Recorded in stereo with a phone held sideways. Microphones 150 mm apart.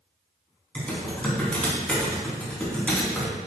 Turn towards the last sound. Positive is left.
turn(degrees=10)  # may be behind; listen again after turning